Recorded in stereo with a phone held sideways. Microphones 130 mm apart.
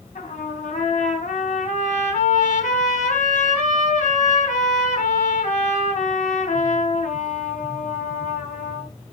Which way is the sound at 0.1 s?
80° left.